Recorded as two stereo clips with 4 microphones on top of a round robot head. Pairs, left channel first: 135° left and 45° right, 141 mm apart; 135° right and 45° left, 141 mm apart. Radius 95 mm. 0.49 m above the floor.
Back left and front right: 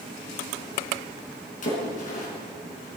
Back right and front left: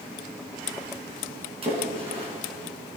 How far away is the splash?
About 4.5 m.